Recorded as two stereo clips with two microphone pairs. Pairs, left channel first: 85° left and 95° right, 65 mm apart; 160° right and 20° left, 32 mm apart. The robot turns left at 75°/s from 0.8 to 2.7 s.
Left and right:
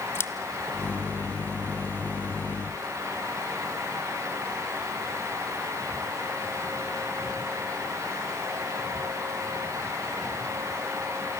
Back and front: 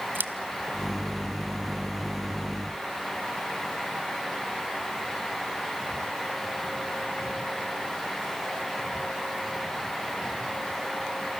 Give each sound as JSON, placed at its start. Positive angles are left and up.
{"t": 0.1, "sound": "scissors", "azimuth_deg": 30, "distance_m": 0.9}